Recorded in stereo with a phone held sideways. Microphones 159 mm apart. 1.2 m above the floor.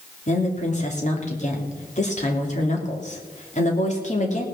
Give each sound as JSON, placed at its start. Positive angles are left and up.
{"t": 0.3, "sound": "a woman speaking", "side_deg": 50, "distance_m": 3.0}